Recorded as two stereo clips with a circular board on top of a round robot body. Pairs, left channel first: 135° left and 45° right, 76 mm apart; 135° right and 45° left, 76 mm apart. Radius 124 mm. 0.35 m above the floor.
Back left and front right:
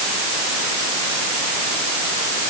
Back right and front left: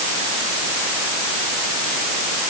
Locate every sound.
Only background noise.